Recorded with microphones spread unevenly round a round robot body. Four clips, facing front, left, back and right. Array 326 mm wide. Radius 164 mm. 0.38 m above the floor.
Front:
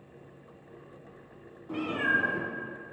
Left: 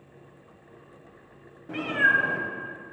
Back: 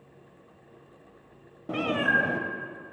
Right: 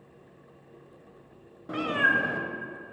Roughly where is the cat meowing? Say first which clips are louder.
Left 1 dB, back 3 dB; behind.